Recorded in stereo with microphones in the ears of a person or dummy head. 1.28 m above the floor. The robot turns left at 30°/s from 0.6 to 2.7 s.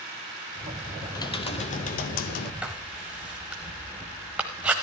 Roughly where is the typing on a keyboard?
Behind.